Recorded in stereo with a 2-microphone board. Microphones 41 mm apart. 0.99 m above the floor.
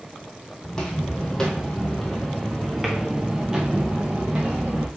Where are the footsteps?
20° left (ahead or behind), 1.7 m; by 4.9 s 25° right (ahead or behind), 1.5 m.